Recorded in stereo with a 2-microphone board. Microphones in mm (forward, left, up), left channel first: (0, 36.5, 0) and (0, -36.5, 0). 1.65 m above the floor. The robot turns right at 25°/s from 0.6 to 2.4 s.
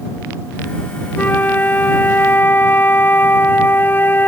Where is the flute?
25° left (ahead or behind); by 4.3 s 30° left (ahead or behind).